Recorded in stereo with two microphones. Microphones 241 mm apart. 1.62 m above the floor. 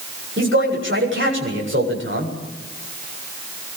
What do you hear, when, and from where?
0.4 s a man speaking: 55° right (ahead or behind), 7.5 m